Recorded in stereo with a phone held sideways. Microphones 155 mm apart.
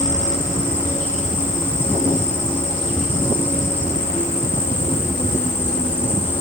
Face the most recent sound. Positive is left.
turn(degrees=50)  # may be behind; listen again after turning